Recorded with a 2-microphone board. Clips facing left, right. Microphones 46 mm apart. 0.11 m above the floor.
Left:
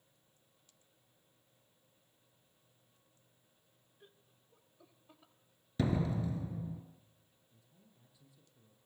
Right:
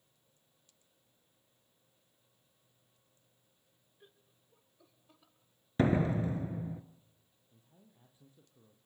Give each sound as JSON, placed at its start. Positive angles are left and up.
{"t": 4.0, "sound": "laughter", "side_deg": -5, "distance_m": 1.8}
{"t": 5.8, "sound": "a door slam", "side_deg": -40, "distance_m": 1.4}
{"t": 7.5, "sound": "a man speaking", "side_deg": -40, "distance_m": 3.0}